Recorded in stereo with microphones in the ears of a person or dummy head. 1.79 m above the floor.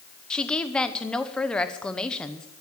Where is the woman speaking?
5° left (ahead or behind), 1.0 m.